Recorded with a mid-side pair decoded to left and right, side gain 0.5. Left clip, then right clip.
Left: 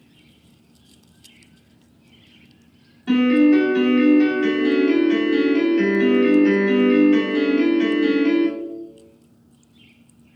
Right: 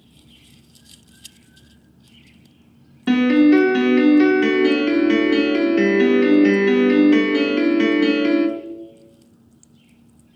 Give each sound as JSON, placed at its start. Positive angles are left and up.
{"t": 3.1, "sound": "a piano", "azimuth_deg": -65, "distance_m": 0.9}